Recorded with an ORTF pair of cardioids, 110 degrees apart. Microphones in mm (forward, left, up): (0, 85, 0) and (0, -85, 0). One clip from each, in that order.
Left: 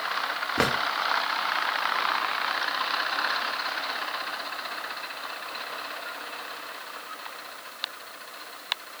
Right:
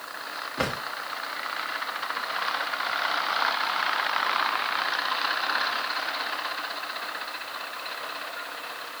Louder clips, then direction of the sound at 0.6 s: Left 4 dB; 55° left.